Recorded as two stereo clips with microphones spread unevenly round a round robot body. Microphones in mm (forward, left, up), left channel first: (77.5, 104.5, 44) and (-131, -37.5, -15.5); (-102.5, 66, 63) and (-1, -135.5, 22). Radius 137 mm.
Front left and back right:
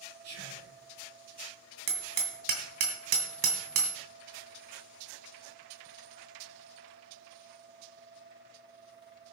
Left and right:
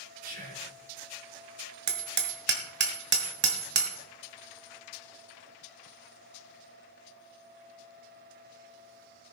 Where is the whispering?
115° right, 5 m.